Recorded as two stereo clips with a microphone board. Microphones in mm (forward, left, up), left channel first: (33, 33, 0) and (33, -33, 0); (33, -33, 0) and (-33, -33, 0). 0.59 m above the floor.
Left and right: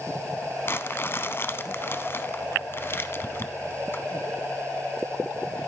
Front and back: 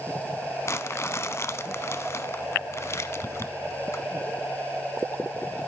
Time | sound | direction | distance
0.7 | crumpling | 40° left | 0.8 m